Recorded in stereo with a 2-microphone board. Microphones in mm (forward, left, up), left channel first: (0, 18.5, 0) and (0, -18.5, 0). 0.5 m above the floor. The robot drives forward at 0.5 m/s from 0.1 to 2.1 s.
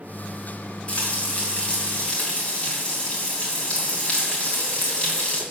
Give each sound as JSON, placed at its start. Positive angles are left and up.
{"t": 0.9, "sound": "frying", "side_deg": 40, "distance_m": 2.5}